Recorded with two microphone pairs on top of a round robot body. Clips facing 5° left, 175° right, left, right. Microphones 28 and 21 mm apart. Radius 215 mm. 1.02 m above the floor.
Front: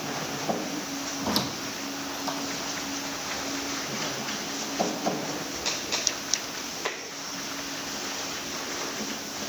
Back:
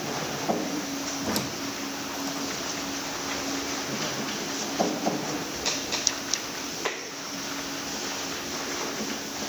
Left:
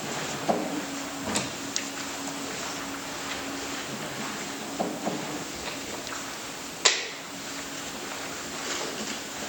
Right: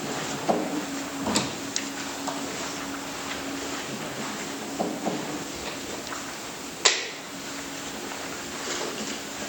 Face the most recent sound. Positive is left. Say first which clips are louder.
# front 3 dB, right 5 dB
turn(degrees=-45)